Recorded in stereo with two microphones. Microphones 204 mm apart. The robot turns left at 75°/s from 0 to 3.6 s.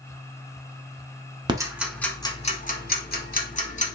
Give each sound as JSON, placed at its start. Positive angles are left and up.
{"t": 1.5, "sound": "ticking", "side_deg": -20, "distance_m": 0.8}